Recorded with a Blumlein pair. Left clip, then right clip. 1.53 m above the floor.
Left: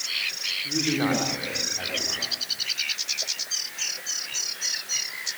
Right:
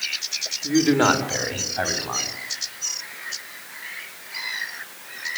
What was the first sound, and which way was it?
A man speaking, 40° right.